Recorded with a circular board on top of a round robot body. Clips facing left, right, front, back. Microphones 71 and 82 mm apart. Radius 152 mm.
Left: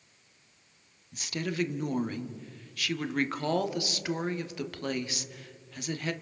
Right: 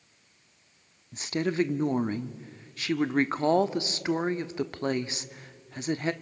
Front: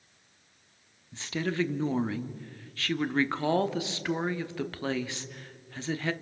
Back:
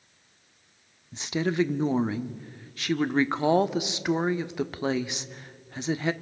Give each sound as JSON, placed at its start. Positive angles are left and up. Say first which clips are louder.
{"t": 1.1, "sound": "a woman speaking", "louder": "right 5 dB, back 5 dB", "azimuth_deg": -120, "distance_m": 1.1}